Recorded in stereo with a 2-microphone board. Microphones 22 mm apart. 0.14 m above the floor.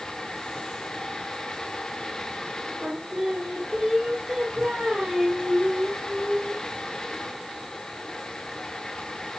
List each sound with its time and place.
2.8 s singing: 55° right (ahead or behind), 2 m